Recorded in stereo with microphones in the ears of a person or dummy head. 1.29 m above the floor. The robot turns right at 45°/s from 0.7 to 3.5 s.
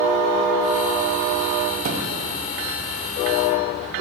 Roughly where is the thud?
Right.